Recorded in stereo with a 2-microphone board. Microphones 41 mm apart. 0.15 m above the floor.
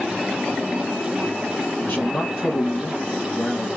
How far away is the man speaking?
About 3 m.